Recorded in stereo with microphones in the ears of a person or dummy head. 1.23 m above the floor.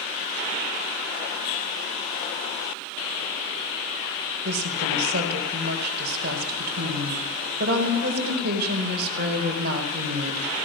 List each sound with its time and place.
4.5 s a woman speaking: 60° right (ahead or behind), 4 m